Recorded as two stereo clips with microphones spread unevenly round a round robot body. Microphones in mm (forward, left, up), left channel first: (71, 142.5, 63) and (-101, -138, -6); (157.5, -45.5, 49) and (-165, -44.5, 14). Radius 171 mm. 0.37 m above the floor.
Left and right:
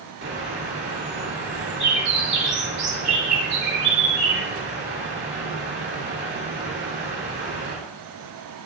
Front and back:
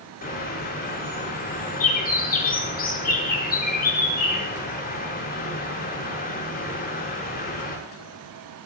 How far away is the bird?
About 6.5 m.